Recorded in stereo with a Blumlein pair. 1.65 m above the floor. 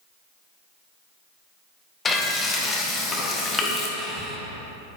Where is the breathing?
5° right, 1.5 m.